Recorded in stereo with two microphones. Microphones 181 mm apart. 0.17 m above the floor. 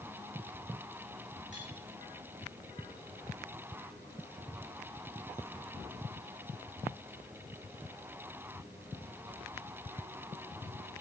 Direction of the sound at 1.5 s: 85° left.